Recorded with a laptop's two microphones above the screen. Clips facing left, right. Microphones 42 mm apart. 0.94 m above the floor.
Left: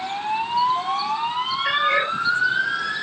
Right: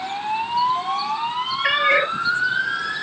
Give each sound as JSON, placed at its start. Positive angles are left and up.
{"t": 1.6, "sound": "a cat meowing", "side_deg": -80, "distance_m": 5.0}